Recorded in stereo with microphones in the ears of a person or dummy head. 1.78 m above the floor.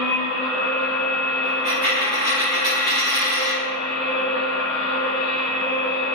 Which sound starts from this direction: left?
A machine running, at 0.0 s.